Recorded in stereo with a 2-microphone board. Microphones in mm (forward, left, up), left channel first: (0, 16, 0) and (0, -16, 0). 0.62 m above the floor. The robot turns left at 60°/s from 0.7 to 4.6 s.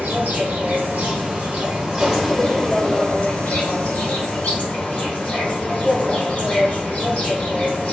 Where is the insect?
85° right, 0.8 m; by 7.9 s 40° left, 0.8 m.